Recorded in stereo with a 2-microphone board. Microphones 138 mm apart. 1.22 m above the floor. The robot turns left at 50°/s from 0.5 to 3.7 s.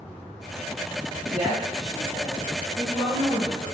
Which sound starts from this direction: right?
A woman speaking, at 1.3 s.